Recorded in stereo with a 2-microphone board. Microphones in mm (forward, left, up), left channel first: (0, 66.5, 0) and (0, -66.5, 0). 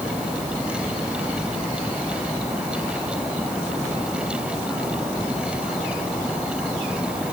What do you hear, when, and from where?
Only background noise.